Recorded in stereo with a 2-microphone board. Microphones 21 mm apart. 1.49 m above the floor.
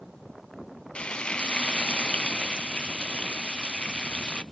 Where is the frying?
65° left (ahead or behind), 0.6 m.